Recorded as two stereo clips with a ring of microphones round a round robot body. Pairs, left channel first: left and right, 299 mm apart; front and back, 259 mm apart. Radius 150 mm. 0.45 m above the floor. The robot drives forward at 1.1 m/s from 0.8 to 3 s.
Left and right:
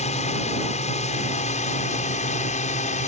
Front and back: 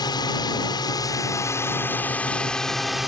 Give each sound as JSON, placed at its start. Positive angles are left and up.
{"t": 0.0, "sound": "a drone", "azimuth_deg": 55}